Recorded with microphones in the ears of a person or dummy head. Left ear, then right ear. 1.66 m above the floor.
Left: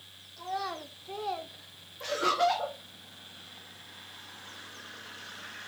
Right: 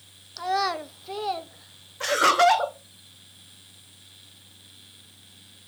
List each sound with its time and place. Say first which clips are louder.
0.4 s a child speaking: right 10 dB; 50° right (ahead or behind), 0.7 m; by 2.4 s 10° left (ahead or behind), 1.1 m
2.0 s laughter: right 8 dB; 45° right (ahead or behind), 0.9 m